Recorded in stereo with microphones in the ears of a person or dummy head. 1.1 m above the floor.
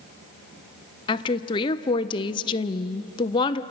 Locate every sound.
1.1 s a woman speaking: 25° left (ahead or behind), 0.7 m